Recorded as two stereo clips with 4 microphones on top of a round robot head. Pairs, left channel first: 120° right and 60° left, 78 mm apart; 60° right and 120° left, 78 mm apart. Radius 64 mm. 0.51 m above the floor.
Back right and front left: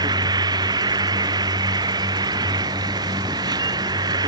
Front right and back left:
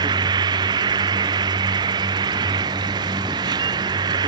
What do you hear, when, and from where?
0.0 s an insect: 95° left